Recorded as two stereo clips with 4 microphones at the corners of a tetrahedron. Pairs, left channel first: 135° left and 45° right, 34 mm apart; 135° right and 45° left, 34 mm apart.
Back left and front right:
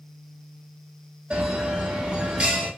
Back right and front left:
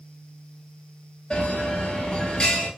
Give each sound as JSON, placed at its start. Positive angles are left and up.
{"t": 1.3, "sound": "a bell", "azimuth_deg": -70, "distance_m": 1.2}